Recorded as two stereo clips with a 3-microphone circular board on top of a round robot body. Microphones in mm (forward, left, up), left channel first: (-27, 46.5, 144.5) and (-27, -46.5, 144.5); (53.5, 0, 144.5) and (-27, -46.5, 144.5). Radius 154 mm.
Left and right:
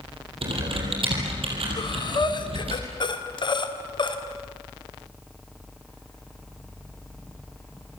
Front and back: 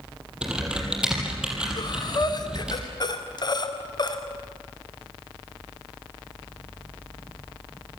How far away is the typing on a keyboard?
About 6 m.